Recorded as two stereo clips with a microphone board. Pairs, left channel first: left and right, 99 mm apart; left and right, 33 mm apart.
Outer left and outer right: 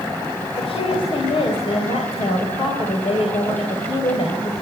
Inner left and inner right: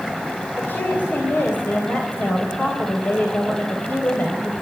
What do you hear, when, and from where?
0.6 s a woman speaking: 70° left (ahead or behind), 3 m